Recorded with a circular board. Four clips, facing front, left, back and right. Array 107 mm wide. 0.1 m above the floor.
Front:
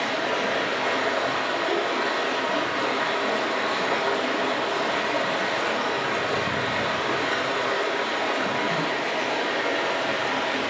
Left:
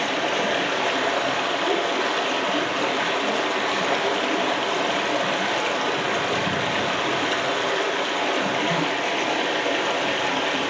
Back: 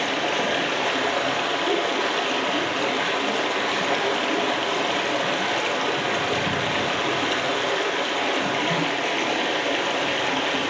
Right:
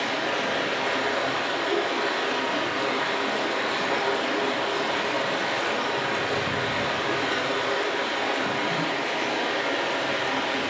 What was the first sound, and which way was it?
Running water, 140° left.